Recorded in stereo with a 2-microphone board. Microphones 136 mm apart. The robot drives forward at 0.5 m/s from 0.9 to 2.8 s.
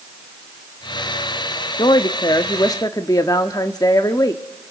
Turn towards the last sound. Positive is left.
turn(degrees=25)  # may be behind; listen again after turning